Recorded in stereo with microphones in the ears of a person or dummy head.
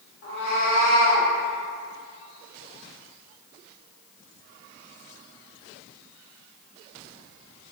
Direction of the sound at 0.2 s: 65° left (ahead or behind).